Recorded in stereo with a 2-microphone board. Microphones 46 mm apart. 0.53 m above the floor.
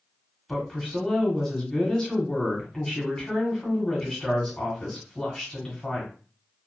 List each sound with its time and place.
0.5 s a woman speaking: 15° left (ahead or behind), 1.3 m